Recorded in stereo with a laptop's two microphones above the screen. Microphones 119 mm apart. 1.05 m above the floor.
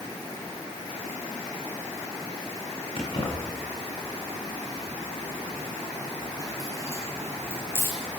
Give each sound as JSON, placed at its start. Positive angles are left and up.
{"t": 3.0, "sound": "keys jangling", "side_deg": 45, "distance_m": 7.0}